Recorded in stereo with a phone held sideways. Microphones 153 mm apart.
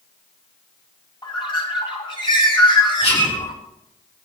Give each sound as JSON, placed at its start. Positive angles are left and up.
{"t": 1.2, "sound": "a bird", "side_deg": 35, "distance_m": 2.0}
{"t": 3.0, "sound": "whispering", "side_deg": 40, "distance_m": 3.0}